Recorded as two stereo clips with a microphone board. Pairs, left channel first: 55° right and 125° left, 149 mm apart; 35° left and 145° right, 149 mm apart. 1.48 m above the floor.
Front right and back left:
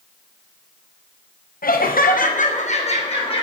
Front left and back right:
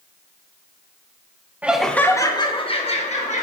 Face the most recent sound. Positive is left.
turn(degrees=-5)